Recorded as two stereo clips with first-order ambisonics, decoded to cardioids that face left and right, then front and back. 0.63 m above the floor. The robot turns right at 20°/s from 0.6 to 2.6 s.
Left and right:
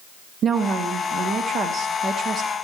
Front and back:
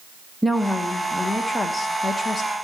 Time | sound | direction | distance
0.4 | a woman speaking | 95° right | 0.5 m